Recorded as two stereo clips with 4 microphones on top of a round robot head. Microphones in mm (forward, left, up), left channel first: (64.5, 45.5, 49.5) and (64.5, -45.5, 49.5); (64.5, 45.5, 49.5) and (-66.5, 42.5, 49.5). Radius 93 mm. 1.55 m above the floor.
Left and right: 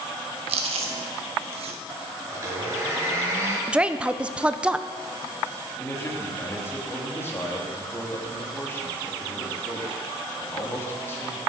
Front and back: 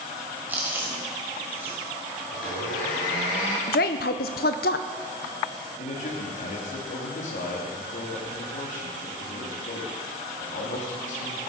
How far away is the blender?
About 5.5 m.